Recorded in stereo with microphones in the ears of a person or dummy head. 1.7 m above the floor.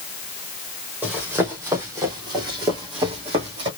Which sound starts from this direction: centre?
Running footsteps, at 1.0 s.